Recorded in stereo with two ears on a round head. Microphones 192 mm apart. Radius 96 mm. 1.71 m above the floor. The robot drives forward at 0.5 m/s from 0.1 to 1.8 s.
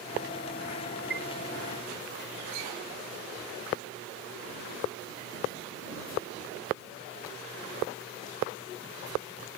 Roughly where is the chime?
Right.